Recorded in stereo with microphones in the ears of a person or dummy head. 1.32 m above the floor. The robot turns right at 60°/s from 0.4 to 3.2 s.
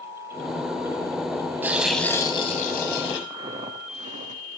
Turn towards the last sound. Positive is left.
turn(degrees=-45)  # may be behind; listen again after turning